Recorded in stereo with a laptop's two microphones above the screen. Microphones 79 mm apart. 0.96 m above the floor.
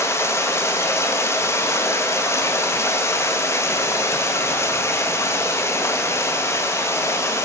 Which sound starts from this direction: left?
Running water, at 0.0 s.